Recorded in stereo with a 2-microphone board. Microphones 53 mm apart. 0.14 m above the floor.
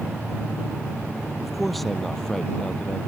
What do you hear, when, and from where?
1.4 s a man speaking: 5° right (ahead or behind); by 3.0 s 20° left (ahead or behind)